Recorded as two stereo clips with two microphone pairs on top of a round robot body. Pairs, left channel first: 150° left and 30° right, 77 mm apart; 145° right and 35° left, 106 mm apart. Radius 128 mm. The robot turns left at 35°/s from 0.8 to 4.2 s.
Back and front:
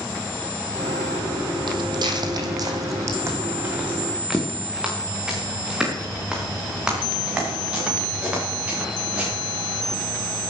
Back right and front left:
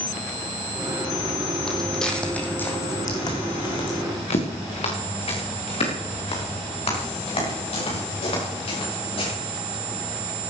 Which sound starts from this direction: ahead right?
Footsteps, at 1.7 s.